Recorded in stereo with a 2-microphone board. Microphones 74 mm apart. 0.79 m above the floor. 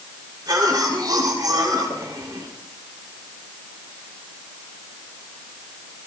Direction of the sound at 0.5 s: 60° right (ahead or behind).